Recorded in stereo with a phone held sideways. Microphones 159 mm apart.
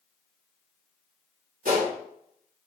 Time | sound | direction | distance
1.6 | a gunshot | 70° right (ahead or behind) | 2.5 m